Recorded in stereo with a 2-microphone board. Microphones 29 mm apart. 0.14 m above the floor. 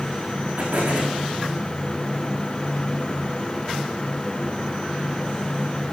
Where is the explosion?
80° right, 8 m.